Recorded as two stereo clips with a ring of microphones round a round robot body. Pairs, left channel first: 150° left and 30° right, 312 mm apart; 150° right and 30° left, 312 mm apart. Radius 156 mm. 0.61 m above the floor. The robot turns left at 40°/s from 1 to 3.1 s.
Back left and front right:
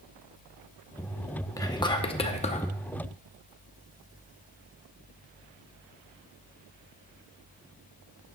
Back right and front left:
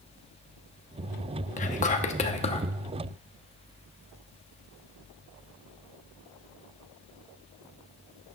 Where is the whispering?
145° right, 0.7 m; by 2.7 s 170° left, 0.7 m.